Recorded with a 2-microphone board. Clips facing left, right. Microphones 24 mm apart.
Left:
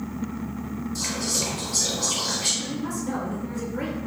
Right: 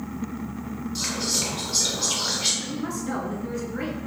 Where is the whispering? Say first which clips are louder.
Right 1 dB; 40° right (ahead or behind), 2 m.